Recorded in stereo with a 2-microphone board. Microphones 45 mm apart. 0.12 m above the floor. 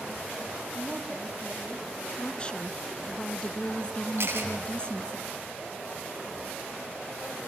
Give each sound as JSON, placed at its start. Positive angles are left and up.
{"t": 0.7, "sound": "a woman speaking", "side_deg": -15, "distance_m": 6.5}
{"t": 2.2, "sound": "a woman speaking", "side_deg": 20, "distance_m": 1.2}
{"t": 4.2, "sound": "a camera shutter", "side_deg": -60, "distance_m": 7.5}